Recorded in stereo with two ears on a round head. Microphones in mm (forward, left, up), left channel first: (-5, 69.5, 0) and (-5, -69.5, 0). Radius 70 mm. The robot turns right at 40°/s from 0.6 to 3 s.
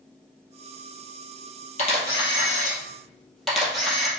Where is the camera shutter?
50° left (ahead or behind), 2.0 m; by 4.1 s centre (ahead or behind), 2.0 m.